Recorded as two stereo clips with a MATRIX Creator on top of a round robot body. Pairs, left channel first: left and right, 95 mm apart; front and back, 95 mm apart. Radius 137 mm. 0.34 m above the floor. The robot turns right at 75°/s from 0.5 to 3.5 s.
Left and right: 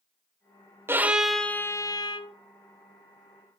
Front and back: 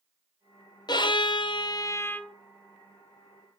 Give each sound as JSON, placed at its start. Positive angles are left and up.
{"t": 0.9, "sound": "a violin", "azimuth_deg": -30, "distance_m": 1.2}